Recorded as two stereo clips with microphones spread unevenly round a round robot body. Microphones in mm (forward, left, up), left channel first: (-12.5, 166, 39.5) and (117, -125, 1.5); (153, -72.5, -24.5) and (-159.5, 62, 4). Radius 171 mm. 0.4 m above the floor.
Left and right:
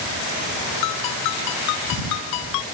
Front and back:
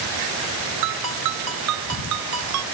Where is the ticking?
I don't hear ticking.